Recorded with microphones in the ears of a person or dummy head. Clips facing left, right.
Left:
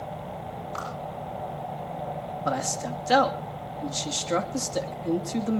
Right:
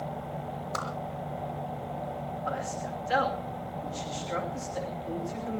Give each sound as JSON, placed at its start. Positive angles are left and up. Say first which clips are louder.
{"t": 0.7, "sound": "a whoosh", "louder": "right 1 dB", "side_deg": -70, "distance_m": 5.5}
{"t": 2.5, "sound": "a man speaking", "louder": "left 7 dB", "side_deg": 65, "distance_m": 2.5}